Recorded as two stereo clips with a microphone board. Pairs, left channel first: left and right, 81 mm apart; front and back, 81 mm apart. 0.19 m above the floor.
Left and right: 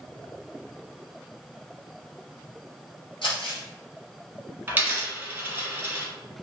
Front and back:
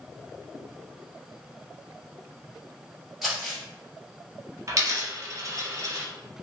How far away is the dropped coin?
About 1.0 m.